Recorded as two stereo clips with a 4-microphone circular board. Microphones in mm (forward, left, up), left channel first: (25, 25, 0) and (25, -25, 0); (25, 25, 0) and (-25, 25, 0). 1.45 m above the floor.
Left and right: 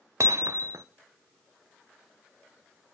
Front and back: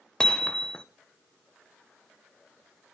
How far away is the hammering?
About 0.7 m.